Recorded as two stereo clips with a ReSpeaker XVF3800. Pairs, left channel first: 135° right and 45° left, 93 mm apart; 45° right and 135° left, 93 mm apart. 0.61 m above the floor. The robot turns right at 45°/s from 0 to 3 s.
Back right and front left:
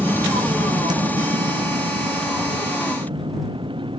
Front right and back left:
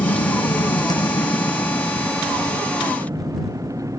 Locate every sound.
0.0 s a vehicle: 30° right; by 4.0 s 80° left